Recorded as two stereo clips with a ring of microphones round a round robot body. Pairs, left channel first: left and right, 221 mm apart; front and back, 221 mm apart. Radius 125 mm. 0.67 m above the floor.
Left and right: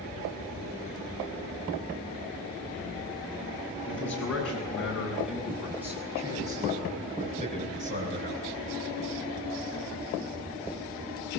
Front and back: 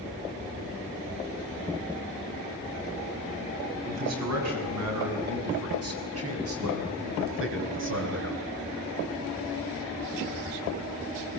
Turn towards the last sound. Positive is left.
turn(degrees=-140)